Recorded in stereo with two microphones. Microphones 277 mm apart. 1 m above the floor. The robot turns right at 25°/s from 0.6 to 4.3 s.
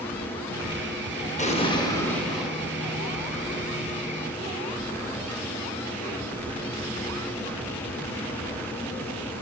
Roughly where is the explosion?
Left.